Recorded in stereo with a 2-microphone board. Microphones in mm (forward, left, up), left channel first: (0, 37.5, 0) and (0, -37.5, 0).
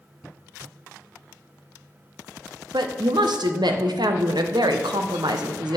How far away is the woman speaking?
About 1.0 m.